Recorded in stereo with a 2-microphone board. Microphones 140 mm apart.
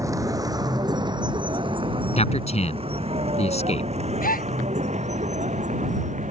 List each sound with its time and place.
0.0 s a vehicle: 20° right (ahead or behind); by 6.3 s 60° right (ahead or behind)
2.2 s a man speaking: 50° left (ahead or behind)
4.2 s a gasp: 85° left